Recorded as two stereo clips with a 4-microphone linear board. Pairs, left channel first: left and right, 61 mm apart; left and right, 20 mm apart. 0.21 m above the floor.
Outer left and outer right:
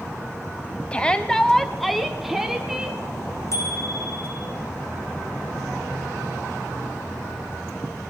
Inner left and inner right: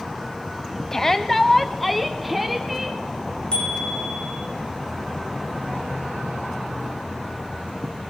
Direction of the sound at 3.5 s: 55° left (ahead or behind).